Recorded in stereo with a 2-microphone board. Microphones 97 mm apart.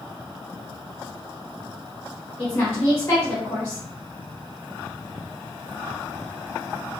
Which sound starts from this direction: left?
A woman speaking, at 2.4 s.